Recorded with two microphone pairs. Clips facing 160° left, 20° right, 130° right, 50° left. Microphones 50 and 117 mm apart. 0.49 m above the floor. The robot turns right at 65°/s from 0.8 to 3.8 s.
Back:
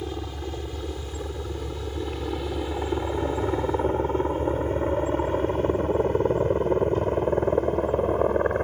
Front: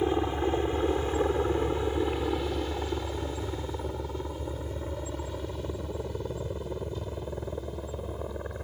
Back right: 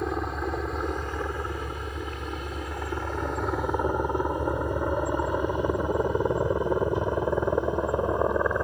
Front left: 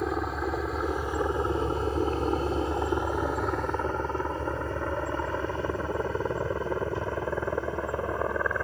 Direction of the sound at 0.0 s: 40° right.